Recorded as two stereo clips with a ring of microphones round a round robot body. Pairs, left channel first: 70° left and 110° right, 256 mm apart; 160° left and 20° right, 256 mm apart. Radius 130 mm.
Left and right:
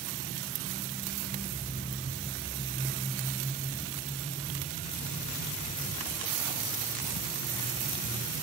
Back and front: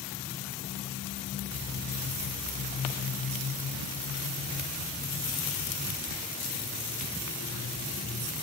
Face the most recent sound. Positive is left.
No sound to turn to.